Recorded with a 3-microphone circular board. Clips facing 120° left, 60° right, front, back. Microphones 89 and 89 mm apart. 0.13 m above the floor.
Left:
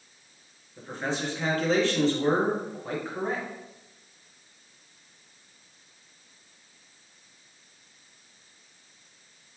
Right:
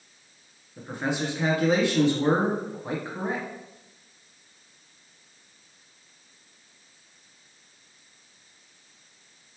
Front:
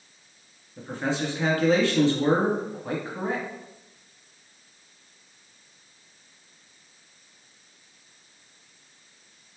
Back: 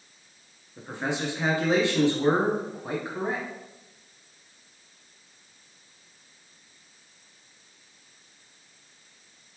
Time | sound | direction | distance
0.8 | a man speaking | 125° right | 1.2 m